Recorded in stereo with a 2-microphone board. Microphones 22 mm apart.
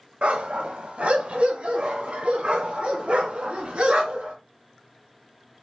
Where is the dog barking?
75° right (ahead or behind), 1.8 m; by 4.3 s 70° right (ahead or behind), 4.5 m.